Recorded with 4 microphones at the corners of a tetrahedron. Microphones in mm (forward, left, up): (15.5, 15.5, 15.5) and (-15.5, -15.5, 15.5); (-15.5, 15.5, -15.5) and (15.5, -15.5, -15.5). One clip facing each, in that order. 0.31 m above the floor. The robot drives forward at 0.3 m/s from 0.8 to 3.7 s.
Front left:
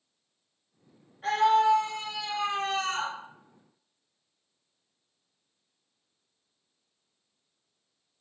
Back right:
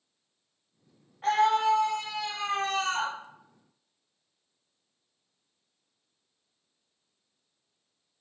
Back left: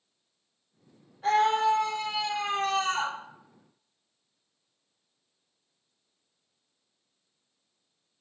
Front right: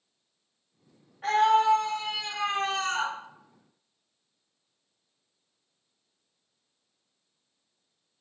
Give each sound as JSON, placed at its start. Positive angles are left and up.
{"t": 1.2, "sound": "a scream", "azimuth_deg": -90, "distance_m": 3.0}